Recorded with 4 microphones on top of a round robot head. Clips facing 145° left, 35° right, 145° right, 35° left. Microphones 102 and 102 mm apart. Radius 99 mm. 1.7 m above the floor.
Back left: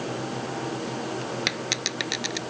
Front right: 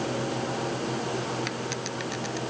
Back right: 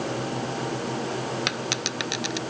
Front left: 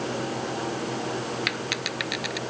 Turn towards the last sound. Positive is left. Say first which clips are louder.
# even, back right 1 dB
turn(degrees=150)